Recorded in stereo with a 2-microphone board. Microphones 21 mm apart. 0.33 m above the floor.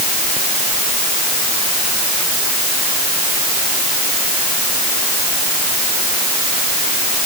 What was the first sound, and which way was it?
Only background noise.